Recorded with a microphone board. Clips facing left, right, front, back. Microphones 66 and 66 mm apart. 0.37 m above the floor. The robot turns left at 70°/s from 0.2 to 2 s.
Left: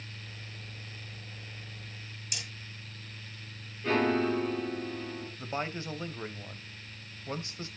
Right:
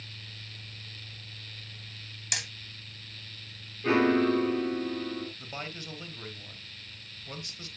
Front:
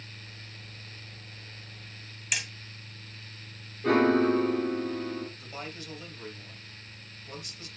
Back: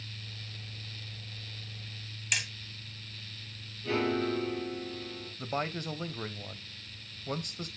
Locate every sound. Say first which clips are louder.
2.3 s hammering: right 7 dB, even; 90° right, 2.0 m
3.8 s a piano: right 4 dB, front 8 dB; 20° right, 3.5 m
5.4 s a man speaking: left 5 dB, back 7 dB; 150° left, 1.5 m